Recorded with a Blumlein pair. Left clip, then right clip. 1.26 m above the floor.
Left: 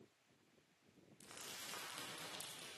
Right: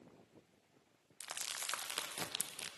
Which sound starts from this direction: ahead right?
Crumpling, at 1.2 s.